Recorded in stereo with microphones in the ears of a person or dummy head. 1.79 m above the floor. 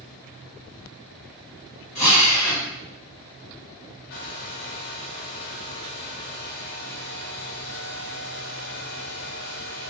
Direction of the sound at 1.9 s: 30° left (ahead or behind).